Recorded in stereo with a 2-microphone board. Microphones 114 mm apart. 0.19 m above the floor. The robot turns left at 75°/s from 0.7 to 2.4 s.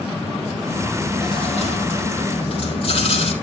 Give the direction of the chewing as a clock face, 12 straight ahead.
6 o'clock.